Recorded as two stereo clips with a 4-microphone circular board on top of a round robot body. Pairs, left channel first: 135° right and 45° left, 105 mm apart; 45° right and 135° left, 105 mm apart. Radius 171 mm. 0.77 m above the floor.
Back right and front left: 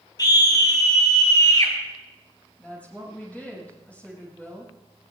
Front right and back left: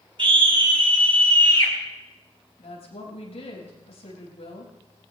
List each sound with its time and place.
0.2 s a scream: 175° left, 4.5 m
2.6 s a woman speaking: 60° right, 5.5 m